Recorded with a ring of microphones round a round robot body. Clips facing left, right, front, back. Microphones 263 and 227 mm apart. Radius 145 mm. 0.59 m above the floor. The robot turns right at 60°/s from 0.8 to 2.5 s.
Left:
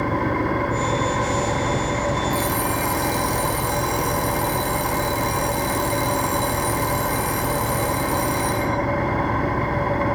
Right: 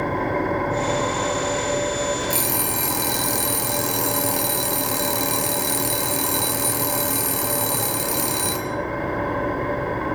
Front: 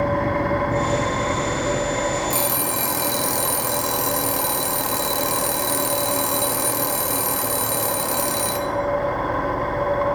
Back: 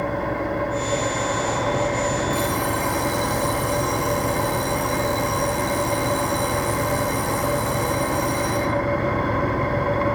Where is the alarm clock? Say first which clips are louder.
Left 3 dB, back 2 dB; 45° right, 5 m; by 8.7 s 35° right, 5 m.